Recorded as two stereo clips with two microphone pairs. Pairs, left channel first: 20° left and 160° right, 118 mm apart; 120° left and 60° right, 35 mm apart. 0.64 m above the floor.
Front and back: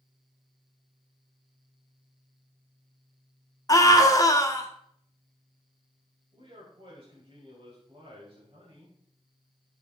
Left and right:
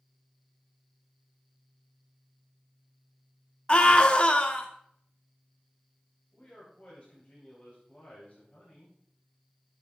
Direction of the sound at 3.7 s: 75° left.